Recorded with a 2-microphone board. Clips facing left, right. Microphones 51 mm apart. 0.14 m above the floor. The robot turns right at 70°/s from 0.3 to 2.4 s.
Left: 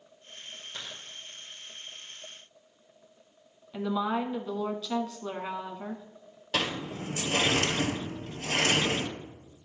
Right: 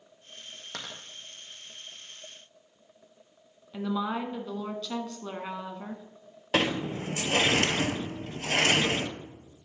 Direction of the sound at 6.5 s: 35° right (ahead or behind).